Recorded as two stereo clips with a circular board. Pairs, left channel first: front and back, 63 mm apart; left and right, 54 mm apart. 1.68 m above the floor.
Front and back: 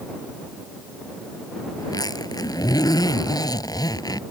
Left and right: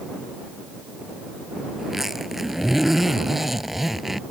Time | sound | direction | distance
1.8 | a zipper | 5° right | ?